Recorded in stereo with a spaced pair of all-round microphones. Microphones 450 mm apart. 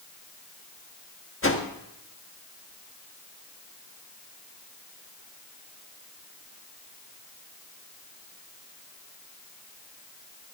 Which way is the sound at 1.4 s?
30° left (ahead or behind).